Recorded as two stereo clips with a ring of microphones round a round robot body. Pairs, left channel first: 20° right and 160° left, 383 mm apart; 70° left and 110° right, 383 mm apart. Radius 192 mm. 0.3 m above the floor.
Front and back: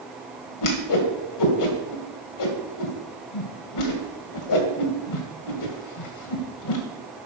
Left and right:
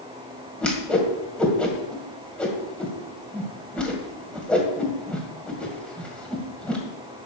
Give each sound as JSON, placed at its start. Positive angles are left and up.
{"t": 0.6, "sound": "a whoosh", "azimuth_deg": -20, "distance_m": 2.0}